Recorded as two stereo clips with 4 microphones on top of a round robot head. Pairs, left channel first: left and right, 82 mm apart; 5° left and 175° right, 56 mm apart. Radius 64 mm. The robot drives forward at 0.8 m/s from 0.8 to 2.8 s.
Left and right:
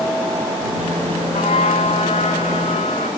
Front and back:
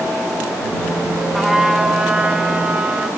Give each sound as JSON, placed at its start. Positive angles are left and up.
{"t": 1.3, "sound": "a trumpet", "azimuth_deg": 90, "distance_m": 3.0}